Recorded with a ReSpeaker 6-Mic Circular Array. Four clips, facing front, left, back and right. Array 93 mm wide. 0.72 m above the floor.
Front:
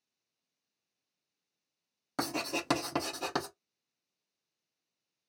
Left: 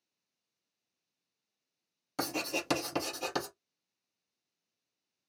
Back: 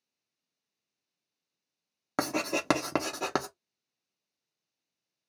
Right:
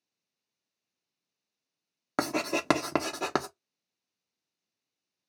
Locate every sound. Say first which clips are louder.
2.2 s writing: right 6 dB, back 5 dB; 125° right, 0.7 m